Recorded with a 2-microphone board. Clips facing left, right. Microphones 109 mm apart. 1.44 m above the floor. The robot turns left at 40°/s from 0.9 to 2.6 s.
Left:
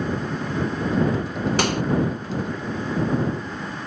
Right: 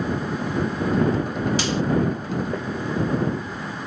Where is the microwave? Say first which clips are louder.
Left 1 dB; 60° left (ahead or behind); by 1.8 s 55° left (ahead or behind).